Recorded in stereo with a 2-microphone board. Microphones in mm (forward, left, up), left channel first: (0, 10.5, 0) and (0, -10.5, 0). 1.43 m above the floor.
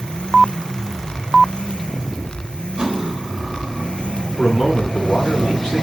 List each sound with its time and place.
2.8 s cutlery clinking: 40° right (ahead or behind), 3.5 m
4.4 s a man speaking: 30° left (ahead or behind), 8 m